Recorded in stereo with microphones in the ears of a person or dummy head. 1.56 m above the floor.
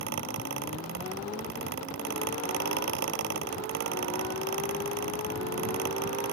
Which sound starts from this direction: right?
A fan, at 0.0 s.